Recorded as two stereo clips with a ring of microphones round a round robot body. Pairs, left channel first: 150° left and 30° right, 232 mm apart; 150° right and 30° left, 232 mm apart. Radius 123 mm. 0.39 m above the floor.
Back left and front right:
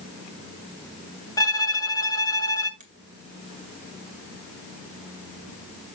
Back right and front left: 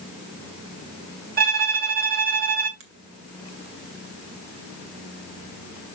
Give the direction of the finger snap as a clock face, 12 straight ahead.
11 o'clock.